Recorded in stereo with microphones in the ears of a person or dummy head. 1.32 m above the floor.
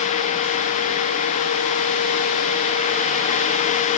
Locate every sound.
Only background noise.